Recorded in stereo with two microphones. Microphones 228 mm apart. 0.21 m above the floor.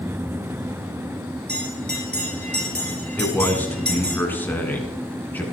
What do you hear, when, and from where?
1.5 s a bell: 45° right (ahead or behind), 3.5 m
3.2 s a man speaking: 10° left (ahead or behind), 2.5 m